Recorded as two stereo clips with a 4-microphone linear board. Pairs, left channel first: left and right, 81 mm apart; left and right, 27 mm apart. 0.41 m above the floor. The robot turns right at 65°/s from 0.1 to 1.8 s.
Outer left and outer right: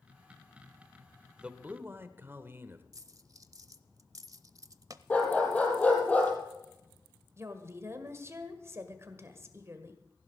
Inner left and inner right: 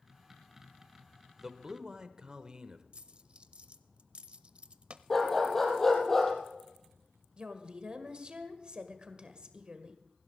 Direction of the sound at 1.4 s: 10° right (ahead or behind).